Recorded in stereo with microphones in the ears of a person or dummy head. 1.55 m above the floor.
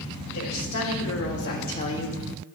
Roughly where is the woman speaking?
Left.